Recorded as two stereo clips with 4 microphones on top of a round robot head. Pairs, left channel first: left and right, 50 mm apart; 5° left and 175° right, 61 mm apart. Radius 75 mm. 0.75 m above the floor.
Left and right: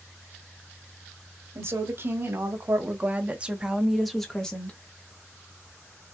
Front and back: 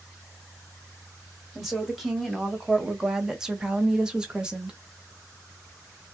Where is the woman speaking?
85° right, 1.5 m; by 4.8 s 125° left, 1.0 m.